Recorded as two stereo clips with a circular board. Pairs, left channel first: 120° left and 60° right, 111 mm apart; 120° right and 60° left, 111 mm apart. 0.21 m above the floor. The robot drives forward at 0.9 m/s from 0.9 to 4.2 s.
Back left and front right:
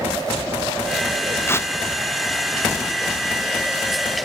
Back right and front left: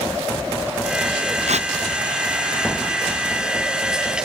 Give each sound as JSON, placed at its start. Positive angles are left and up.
{"t": 1.5, "sound": "tearing paper", "azimuth_deg": 50}